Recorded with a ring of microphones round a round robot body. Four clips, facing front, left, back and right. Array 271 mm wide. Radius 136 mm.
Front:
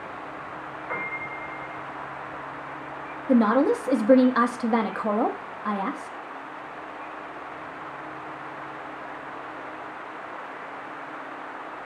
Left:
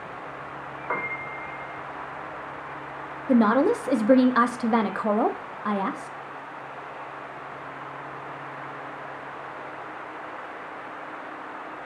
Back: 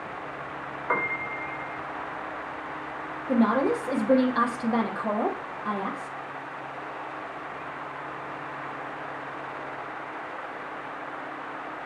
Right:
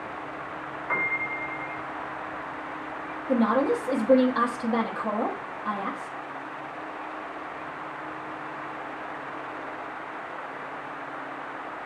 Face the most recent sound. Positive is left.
turn(degrees=60)